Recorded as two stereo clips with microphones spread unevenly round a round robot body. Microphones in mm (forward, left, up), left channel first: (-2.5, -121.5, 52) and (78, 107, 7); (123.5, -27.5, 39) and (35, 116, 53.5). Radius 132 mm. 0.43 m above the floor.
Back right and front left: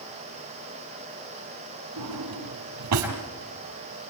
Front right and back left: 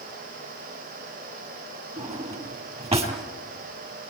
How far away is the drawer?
About 5 m.